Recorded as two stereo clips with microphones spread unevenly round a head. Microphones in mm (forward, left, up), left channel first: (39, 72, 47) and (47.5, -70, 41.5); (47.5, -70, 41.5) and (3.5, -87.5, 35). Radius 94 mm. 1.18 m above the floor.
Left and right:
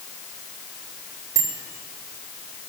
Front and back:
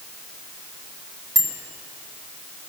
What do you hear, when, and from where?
1.4 s a bicycle bell: 160° right, 3.5 m